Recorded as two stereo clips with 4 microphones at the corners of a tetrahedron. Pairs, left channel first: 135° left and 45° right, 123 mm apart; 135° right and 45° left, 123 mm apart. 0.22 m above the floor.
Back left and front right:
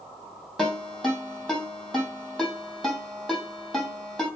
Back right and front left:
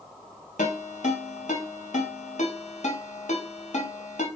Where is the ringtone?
135° right, 3 m.